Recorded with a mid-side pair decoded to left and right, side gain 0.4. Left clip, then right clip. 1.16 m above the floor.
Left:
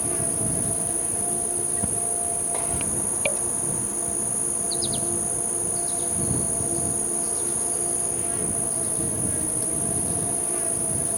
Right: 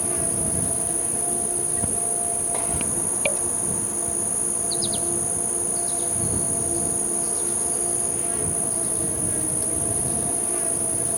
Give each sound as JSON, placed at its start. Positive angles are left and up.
{"t": 0.0, "sound": "an insect", "azimuth_deg": -10}